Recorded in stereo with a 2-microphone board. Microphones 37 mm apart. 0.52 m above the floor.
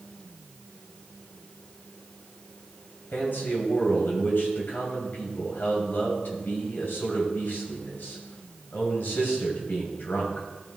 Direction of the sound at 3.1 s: 60° left (ahead or behind).